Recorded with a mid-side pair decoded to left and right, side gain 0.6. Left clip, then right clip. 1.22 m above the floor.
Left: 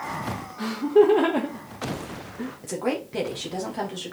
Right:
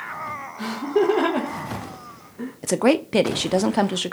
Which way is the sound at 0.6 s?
5° left.